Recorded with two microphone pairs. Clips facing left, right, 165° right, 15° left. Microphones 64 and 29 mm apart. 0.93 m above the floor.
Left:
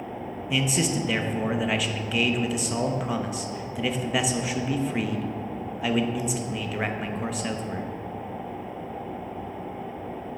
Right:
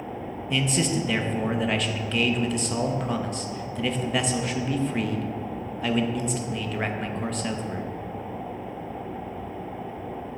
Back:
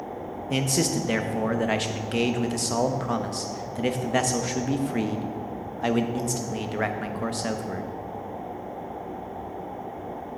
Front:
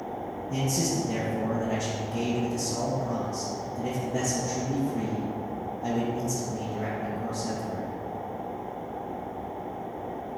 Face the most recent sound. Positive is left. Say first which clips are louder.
# even, back 3 dB
turn(degrees=175)